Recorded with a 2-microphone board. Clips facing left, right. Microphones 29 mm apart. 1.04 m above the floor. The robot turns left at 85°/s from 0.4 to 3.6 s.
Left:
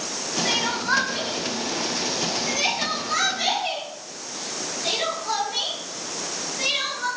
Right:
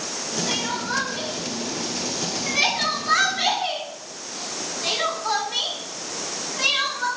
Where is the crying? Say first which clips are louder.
Left 4 dB; 60° left (ahead or behind), 4 m; by 7.1 s 35° right (ahead or behind), 4 m.